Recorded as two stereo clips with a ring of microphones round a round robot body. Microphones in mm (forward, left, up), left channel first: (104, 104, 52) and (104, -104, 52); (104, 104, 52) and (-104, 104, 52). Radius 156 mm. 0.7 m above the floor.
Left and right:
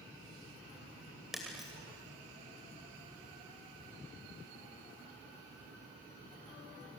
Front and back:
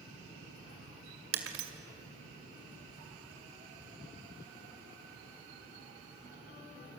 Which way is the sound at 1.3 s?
Straight behind.